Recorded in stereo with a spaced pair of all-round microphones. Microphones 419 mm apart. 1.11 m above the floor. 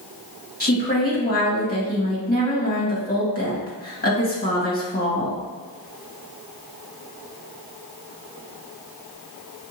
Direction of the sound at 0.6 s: 20° left (ahead or behind).